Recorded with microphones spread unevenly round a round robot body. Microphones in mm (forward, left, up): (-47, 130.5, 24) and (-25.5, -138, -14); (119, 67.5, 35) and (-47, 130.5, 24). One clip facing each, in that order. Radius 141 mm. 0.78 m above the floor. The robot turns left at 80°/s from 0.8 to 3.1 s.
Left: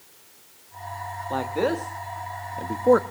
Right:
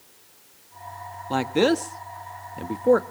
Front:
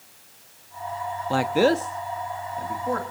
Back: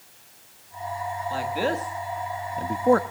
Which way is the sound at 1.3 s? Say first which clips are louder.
Right 5 dB, front 8 dB; 45° right.